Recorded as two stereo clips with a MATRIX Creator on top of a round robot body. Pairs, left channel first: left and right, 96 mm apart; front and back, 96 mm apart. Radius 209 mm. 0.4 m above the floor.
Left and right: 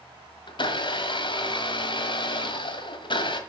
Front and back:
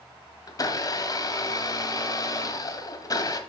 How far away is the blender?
About 1.6 m.